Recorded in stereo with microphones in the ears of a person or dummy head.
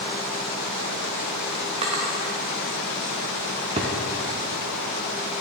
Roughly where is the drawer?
Centre.